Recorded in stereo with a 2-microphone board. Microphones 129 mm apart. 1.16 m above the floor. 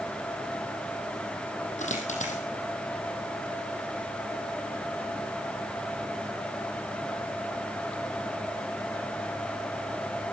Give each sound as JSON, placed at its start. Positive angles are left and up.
{"t": 1.8, "sound": "a dropped coin", "side_deg": 65, "distance_m": 4.0}